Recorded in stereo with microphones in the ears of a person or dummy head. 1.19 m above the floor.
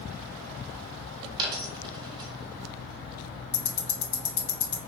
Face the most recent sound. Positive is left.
turn(degrees=40)  # may be behind; listen again after turning